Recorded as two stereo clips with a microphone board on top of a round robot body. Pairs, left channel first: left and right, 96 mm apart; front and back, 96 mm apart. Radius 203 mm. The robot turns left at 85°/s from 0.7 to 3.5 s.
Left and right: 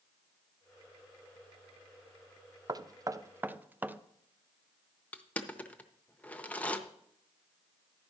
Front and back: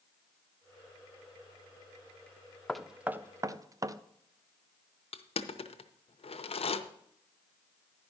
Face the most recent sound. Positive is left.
turn(degrees=15)